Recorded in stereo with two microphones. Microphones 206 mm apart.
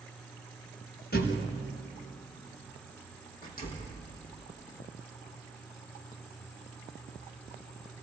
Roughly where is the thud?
Left.